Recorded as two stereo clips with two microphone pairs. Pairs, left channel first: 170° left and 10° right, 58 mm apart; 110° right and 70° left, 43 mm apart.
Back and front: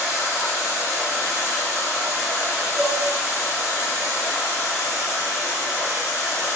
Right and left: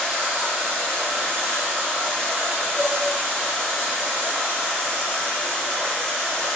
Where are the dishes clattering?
55° left, 0.6 m.